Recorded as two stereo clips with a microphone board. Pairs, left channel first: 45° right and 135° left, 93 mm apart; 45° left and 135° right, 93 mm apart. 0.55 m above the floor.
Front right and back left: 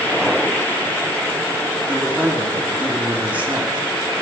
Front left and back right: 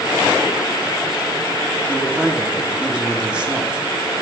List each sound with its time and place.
1.9 s a man speaking: 170° left, 1.3 m